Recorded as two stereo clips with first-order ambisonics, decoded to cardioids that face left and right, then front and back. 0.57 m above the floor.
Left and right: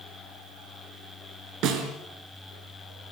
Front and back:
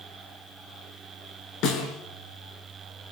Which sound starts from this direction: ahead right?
A snare drum, at 1.6 s.